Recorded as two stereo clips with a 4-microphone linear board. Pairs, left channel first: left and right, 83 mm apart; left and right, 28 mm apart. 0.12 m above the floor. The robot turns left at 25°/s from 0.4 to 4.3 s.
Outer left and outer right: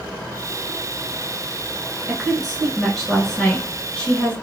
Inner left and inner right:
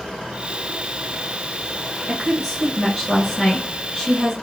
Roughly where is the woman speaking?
Centre.